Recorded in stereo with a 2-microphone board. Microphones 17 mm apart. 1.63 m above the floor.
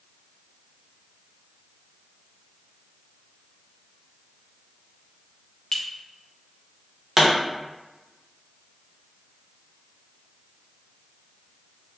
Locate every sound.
5.7 s a clink: 25° left (ahead or behind), 0.5 m
7.2 s a pop: 15° right (ahead or behind), 1.0 m